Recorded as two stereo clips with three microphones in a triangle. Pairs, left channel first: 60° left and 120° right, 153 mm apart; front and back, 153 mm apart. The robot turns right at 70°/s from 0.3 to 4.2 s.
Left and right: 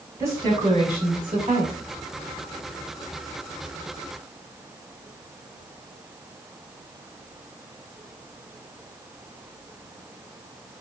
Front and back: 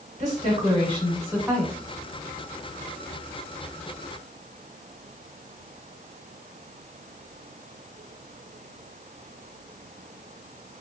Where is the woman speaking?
175° left, 1.3 m; by 1.7 s 85° right, 1.3 m.